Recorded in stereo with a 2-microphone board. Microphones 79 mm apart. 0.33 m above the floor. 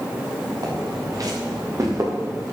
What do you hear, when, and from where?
0.6 s footsteps: 50° right (ahead or behind), 5.5 m; by 2.5 s 40° right (ahead or behind), 6 m